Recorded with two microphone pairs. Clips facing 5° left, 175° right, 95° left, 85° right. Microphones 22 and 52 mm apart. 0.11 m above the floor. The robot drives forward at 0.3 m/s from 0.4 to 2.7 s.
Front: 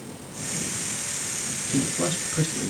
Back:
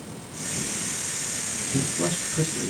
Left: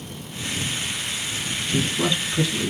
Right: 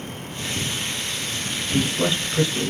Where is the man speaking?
25° right, 1.3 m; by 2.7 s 45° right, 1.1 m.